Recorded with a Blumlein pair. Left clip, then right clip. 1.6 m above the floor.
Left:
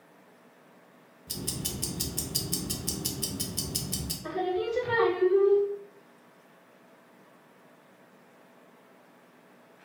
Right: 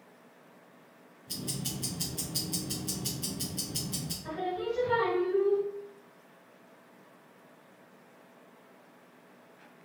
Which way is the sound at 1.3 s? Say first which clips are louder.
Left 2 dB; 65° left.